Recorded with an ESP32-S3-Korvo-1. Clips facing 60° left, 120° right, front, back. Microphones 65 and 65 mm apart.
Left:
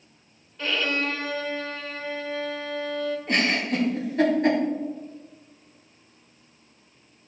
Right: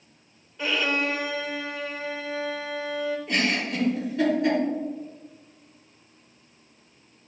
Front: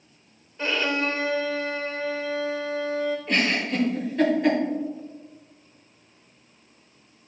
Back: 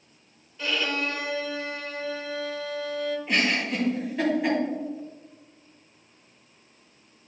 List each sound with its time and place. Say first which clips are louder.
0.6 s a violin: right 1 dB, front 3 dB; 45° right, 1.0 m
3.3 s a giggle: left 4 dB, back 1 dB; 95° left, 3 m